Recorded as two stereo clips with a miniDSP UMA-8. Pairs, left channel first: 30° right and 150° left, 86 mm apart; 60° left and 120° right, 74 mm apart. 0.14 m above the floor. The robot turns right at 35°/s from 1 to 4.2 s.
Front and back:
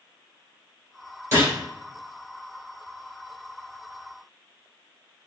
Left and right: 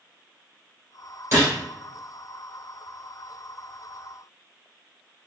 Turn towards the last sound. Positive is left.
turn(degrees=-60)